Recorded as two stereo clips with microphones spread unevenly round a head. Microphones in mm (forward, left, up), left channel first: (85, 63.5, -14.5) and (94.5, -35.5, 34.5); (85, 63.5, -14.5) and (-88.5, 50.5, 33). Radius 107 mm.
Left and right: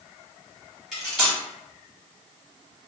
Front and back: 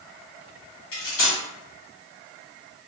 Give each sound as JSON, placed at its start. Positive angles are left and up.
{"t": 0.9, "sound": "cutlery clinking", "azimuth_deg": 0, "distance_m": 1.8}